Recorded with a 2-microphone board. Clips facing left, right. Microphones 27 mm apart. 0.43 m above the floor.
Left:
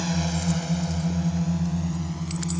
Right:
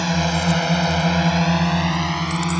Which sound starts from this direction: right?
A drone, at 0.0 s.